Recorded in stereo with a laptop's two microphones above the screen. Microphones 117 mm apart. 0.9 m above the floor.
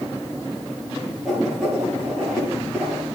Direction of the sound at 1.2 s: Centre (ahead or behind).